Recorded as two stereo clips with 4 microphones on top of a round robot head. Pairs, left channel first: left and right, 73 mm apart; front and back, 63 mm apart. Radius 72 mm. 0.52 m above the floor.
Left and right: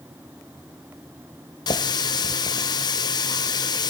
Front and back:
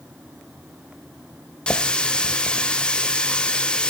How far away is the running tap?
About 1.7 m.